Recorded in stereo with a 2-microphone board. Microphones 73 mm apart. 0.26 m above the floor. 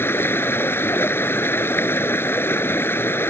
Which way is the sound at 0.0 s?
30° left (ahead or behind).